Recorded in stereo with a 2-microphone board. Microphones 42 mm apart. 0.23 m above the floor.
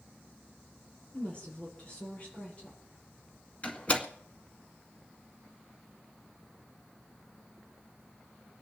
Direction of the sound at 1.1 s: 25° left (ahead or behind).